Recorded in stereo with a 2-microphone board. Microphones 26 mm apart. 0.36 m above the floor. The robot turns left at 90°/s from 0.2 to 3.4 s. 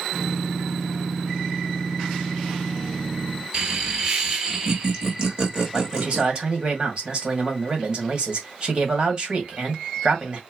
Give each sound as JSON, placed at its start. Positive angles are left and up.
{"t": 3.5, "sound": "laughter", "side_deg": -30, "distance_m": 1.2}
{"t": 5.7, "sound": "a man speaking", "side_deg": -35, "distance_m": 1.8}